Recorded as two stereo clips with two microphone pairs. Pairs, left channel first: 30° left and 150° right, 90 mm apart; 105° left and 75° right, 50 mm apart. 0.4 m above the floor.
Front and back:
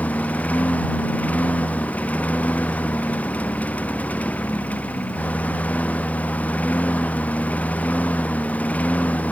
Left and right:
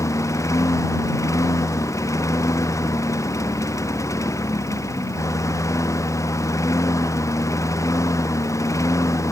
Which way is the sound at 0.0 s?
105° left.